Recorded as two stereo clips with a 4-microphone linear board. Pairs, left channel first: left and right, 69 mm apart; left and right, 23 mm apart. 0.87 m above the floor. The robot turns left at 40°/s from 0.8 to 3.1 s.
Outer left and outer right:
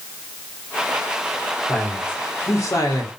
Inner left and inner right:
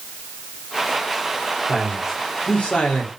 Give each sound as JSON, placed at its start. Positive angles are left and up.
{"t": 1.7, "sound": "a man speaking", "azimuth_deg": 170, "distance_m": 3.0}